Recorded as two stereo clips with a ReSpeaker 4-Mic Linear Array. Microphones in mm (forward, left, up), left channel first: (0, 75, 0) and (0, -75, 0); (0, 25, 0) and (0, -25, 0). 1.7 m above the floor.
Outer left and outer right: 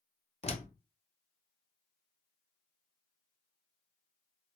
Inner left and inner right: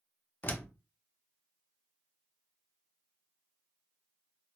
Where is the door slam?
40° left (ahead or behind), 0.6 m.